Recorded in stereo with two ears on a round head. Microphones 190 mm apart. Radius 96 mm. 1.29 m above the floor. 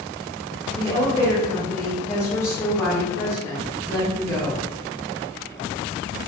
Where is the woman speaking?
10° left (ahead or behind), 0.8 m.